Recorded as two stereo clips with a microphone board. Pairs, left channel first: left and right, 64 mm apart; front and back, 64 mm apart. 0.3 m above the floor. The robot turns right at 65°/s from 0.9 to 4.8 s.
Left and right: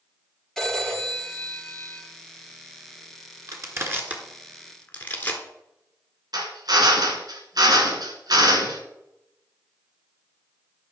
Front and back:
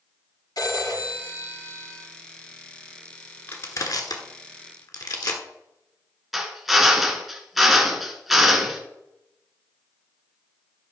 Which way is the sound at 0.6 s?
Straight ahead.